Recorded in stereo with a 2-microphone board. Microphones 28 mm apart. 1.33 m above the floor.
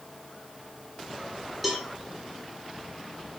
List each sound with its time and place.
1.6 s a cowbell: centre (ahead or behind), 0.7 m